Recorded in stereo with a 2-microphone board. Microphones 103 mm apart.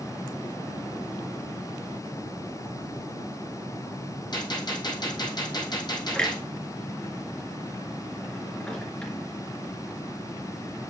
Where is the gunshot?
45° left (ahead or behind), 3.5 m.